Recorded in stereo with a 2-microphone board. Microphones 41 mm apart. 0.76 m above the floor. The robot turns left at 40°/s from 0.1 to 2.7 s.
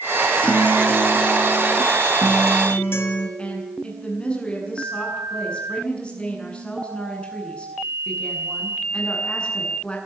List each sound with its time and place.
0.4 s a guitar: 155° left, 4 m; by 3.3 s 65° left, 4 m
3.4 s a woman speaking: 25° left (ahead or behind), 8.5 m